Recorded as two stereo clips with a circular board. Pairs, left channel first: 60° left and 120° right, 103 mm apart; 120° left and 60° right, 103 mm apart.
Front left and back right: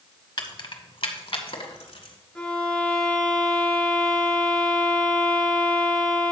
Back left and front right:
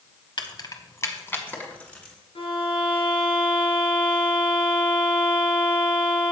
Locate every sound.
0.4 s keys jangling: 95° left, 1.0 m; by 2.1 s 40° left, 2 m
2.4 s a violin: 145° left, 2.5 m